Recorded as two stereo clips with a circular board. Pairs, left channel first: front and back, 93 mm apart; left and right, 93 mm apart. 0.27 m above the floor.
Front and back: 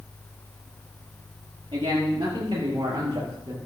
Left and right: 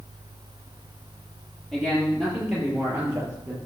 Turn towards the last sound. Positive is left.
turn(degrees=-155)